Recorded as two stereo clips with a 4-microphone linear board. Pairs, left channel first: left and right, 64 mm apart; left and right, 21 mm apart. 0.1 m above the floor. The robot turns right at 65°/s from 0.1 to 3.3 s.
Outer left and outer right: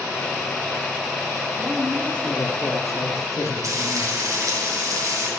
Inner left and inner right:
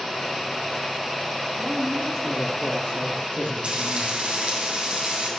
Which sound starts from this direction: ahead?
A man speaking, at 1.6 s.